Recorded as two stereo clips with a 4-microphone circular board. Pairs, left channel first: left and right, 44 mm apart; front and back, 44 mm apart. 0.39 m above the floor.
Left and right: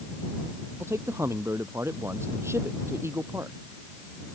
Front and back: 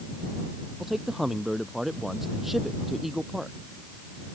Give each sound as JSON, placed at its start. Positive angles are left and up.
{"t": 0.8, "sound": "a man speaking", "azimuth_deg": -95}